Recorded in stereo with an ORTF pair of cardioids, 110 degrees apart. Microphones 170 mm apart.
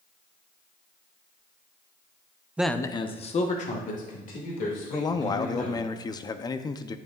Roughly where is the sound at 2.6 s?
Ahead.